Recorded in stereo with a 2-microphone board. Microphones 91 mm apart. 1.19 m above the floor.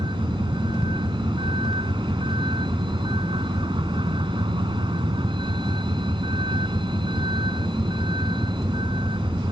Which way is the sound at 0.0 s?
70° right (ahead or behind).